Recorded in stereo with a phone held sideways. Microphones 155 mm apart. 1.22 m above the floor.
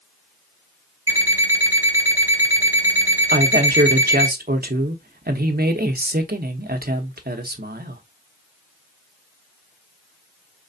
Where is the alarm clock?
15° right (ahead or behind), 1.7 m.